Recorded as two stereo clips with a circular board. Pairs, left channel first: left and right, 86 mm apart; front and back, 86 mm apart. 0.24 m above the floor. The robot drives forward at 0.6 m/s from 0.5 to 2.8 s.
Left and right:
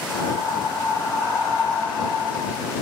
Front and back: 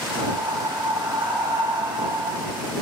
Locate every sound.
0.1 s breathing: 140° left, 1.3 m; by 2.7 s 160° left, 2.5 m